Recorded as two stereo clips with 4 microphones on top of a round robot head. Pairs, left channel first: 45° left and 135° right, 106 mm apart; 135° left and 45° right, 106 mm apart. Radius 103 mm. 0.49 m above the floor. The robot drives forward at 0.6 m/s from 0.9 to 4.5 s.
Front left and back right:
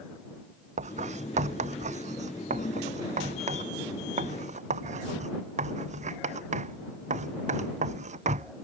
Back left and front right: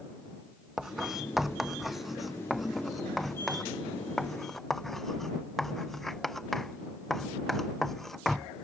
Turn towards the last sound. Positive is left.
turn(degrees=-140)